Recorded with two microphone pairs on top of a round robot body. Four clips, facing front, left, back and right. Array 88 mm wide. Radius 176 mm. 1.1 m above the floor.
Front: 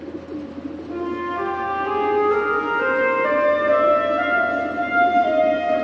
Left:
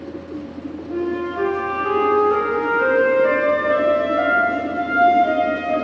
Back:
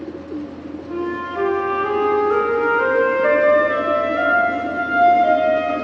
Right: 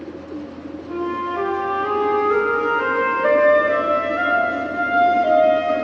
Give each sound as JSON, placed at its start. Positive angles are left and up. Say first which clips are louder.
{"t": 0.9, "sound": "a flute", "louder": "even, back 1 dB", "azimuth_deg": -155, "distance_m": 4.5}